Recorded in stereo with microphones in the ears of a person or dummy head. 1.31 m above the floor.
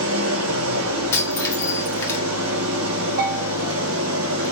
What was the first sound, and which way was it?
An engine running, 70° right (ahead or behind).